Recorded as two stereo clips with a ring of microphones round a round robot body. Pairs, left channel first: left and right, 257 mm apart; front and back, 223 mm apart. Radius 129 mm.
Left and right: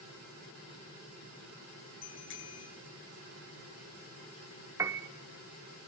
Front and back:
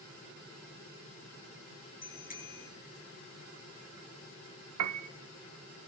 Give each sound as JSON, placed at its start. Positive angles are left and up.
{"t": 2.0, "sound": "a bicycle bell", "azimuth_deg": 50, "distance_m": 9.5}
{"t": 4.8, "sound": "a piano", "azimuth_deg": -170, "distance_m": 0.9}